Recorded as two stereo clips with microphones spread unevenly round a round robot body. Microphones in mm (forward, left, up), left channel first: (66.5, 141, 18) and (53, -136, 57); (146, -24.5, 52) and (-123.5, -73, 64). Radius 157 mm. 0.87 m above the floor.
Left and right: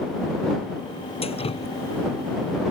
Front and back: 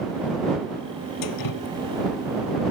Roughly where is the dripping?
Ahead.